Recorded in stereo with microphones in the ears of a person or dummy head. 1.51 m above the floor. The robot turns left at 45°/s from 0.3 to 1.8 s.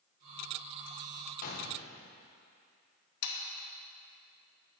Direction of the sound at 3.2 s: 80° left.